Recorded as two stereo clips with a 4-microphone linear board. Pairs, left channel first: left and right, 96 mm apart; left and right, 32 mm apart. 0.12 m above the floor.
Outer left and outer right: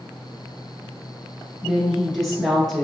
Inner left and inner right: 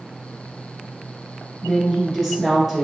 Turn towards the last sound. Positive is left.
turn(degrees=0)  # may be behind; listen again after turning